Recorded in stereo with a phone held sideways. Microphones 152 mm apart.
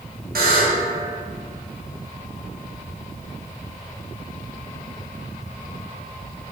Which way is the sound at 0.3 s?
80° right.